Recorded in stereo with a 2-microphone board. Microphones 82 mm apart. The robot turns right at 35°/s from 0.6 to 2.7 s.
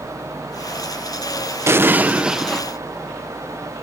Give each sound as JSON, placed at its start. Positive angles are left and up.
{"t": 1.7, "sound": "an explosion", "azimuth_deg": -30}